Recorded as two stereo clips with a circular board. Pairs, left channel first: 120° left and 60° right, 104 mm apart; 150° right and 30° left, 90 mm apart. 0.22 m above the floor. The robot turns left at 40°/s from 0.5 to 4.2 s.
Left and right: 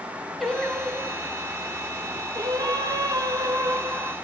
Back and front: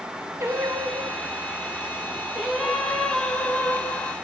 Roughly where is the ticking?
No ticking in this recording.